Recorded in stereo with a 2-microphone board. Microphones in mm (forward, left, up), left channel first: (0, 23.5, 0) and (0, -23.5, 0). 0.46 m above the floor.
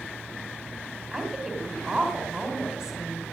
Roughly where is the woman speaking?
Centre.